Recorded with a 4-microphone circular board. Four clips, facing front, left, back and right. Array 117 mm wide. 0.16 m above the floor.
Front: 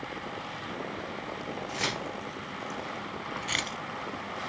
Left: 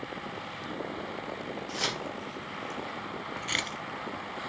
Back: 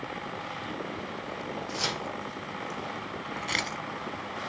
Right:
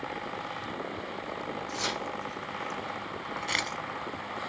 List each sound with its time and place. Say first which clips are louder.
1.7 s keys jangling: even, front 1 dB; 15° left, 2.5 m; by 3.8 s 155° right, 0.9 m